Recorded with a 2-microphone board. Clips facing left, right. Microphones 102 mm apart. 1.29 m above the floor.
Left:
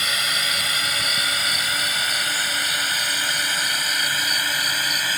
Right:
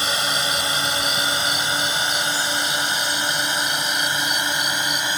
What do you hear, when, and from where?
0.0 s a drone: 30° right (ahead or behind); by 5.2 s 20° right (ahead or behind)